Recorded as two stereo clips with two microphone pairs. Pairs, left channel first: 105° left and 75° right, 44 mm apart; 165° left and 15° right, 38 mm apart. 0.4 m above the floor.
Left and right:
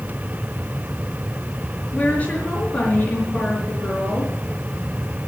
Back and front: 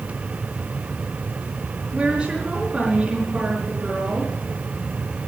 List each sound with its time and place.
1.9 s a woman speaking: 55° left, 5.5 m